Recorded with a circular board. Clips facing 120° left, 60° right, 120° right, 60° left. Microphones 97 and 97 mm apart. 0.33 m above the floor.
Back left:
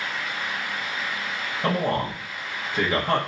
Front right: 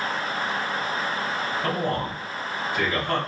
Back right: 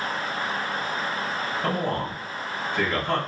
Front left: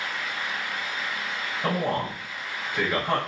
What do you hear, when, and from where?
1.6 s a man speaking: 135° left, 1.0 m